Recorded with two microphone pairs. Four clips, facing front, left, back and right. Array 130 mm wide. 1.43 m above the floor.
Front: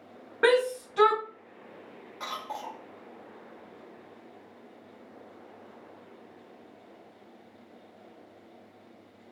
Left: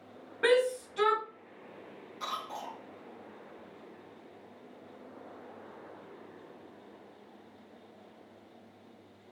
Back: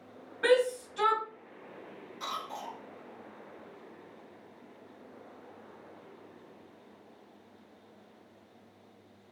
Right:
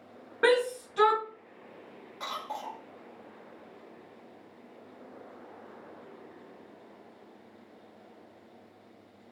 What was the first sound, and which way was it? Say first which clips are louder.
A shout: right 1 dB, front 2 dB; 25° right.